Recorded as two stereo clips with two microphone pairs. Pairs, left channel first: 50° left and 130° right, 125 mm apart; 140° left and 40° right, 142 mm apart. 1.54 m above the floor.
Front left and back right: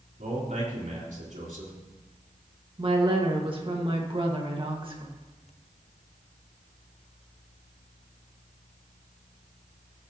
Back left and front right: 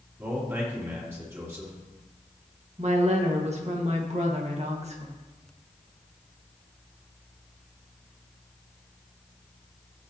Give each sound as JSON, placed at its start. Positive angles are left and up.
{"t": 0.2, "sound": "a man speaking", "azimuth_deg": -115, "distance_m": 3.5}
{"t": 2.8, "sound": "a woman speaking", "azimuth_deg": -80, "distance_m": 1.8}